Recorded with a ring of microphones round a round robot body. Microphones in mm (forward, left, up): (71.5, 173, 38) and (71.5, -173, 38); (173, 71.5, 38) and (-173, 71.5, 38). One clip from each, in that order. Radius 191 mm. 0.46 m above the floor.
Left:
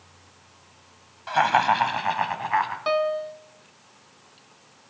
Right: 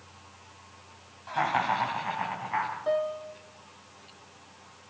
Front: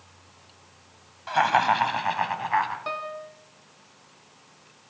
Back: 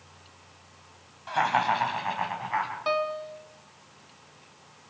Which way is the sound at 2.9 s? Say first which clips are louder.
Left 5 dB, back 5 dB; 105° left.